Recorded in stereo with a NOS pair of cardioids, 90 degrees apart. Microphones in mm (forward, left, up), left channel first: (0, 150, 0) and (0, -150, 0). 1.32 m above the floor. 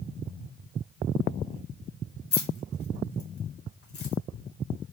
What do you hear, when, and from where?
2.3 s keys jangling: 50° left, 1.7 m